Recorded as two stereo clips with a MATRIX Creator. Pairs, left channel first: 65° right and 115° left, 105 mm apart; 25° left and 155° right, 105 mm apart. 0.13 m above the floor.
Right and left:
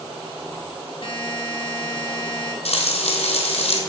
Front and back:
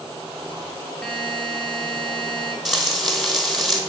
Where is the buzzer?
55° right, 1.2 m.